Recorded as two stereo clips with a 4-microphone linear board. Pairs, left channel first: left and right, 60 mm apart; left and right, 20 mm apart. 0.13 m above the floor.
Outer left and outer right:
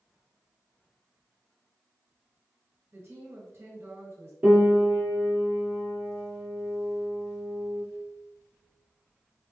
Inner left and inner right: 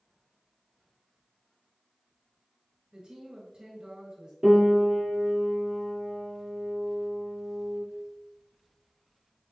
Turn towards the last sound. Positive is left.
turn(degrees=-35)  # may be behind; listen again after turning